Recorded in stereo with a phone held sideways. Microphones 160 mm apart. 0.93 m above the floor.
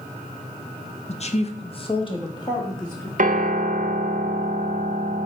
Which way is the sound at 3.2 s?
55° right (ahead or behind).